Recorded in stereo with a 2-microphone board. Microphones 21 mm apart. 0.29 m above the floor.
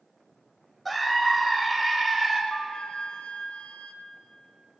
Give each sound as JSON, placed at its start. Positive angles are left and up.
{"t": 0.8, "sound": "a scream", "side_deg": -5, "distance_m": 1.4}
{"t": 2.5, "sound": "a flute", "side_deg": 45, "distance_m": 1.2}